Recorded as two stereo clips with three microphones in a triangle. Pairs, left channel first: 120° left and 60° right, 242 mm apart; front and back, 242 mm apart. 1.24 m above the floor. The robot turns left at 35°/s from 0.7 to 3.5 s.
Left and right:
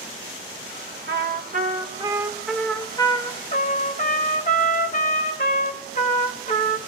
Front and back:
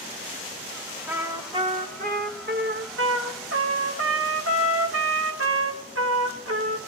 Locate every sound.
1.1 s a trumpet: 95° right, 0.9 m; by 6.8 s 175° left, 0.9 m